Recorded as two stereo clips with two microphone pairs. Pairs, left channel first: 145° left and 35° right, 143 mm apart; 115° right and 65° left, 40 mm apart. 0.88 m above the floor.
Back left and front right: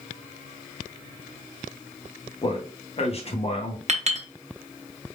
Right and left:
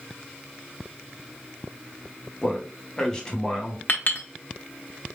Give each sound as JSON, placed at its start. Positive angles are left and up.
{"t": 2.4, "sound": "a man speaking", "azimuth_deg": 180, "distance_m": 1.2}
{"t": 3.9, "sound": "a clink", "azimuth_deg": -75, "distance_m": 1.0}